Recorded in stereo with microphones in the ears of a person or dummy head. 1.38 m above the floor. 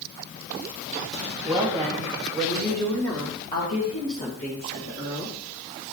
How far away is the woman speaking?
About 2.5 m.